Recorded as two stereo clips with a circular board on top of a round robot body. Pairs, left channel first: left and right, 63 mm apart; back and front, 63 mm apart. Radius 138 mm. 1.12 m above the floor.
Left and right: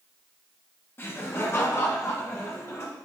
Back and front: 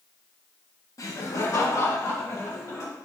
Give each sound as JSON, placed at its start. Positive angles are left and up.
{"t": 1.0, "sound": "laughter", "azimuth_deg": 145, "distance_m": 1.6}